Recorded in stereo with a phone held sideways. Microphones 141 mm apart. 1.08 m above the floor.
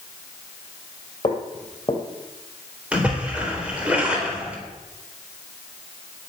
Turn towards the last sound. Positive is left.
turn(degrees=-10)  # may be behind; listen again after turning